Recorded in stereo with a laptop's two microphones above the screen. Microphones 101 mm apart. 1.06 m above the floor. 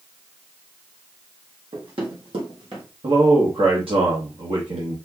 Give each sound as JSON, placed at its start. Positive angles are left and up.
{"t": 1.7, "sound": "running footsteps", "side_deg": -70, "distance_m": 2.5}
{"t": 3.0, "sound": "a man speaking", "side_deg": -70, "distance_m": 1.1}